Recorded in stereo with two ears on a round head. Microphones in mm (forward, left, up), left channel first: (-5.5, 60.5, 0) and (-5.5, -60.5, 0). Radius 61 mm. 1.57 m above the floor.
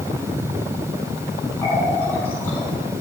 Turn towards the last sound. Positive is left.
turn(degrees=15)  # may be behind; listen again after turning